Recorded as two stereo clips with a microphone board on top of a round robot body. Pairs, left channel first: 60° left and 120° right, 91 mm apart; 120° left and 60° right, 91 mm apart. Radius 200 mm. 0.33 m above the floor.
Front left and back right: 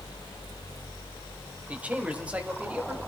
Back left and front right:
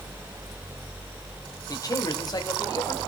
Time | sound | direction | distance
1.7 | a man speaking | 165° left | 2.0 m